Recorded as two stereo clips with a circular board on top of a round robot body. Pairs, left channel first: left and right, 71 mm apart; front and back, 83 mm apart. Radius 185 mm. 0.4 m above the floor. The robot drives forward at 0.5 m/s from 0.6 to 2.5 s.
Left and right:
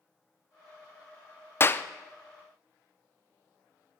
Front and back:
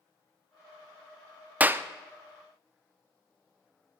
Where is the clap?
120° left, 0.6 m; by 1.8 s 135° left, 0.7 m.